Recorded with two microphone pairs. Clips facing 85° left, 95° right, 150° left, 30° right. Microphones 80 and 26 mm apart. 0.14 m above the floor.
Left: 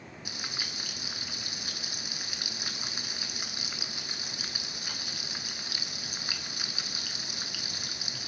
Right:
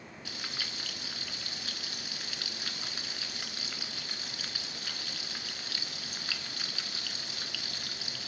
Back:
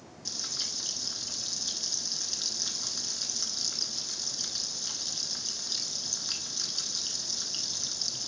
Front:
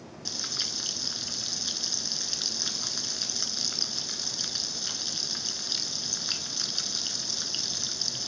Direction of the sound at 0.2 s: 15° left.